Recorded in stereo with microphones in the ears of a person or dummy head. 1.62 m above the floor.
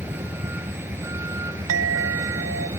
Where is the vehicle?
15° right (ahead or behind); by 2.8 s 20° right (ahead or behind).